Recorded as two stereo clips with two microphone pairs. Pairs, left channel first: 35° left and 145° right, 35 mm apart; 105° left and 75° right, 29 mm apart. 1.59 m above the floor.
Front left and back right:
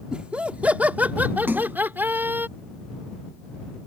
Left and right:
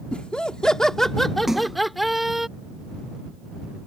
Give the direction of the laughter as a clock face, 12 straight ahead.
7 o'clock.